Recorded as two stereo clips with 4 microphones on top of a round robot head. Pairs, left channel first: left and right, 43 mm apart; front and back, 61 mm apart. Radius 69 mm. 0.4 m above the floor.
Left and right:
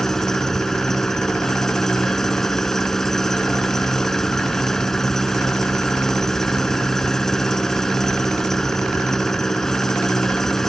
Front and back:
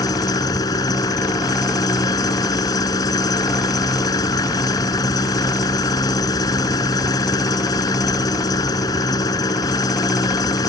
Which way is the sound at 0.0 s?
5° left.